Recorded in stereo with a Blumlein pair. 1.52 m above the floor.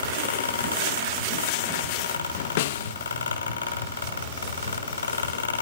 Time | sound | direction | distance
0.0 | a fan | 70° left | 4 m
2.6 | a snare drum | 50° left | 0.6 m